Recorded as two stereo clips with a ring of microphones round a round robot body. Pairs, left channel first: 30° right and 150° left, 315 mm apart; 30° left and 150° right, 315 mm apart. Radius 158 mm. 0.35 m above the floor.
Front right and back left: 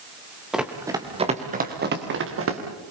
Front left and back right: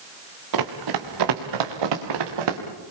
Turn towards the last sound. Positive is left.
turn(degrees=-160)